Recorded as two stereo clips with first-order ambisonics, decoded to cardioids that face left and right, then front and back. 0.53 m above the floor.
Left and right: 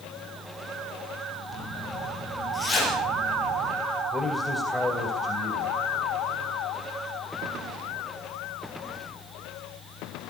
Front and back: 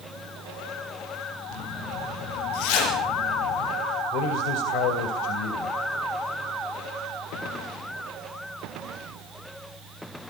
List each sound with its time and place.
1.5 s a zipper: 5° left, 8.5 m
4.1 s a man speaking: 5° left, 2.5 m